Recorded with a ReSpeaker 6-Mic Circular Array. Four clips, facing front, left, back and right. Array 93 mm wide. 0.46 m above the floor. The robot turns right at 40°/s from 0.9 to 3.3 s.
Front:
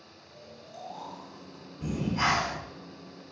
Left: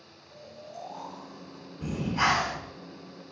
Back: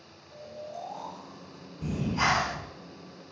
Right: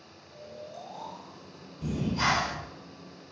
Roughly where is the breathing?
Left.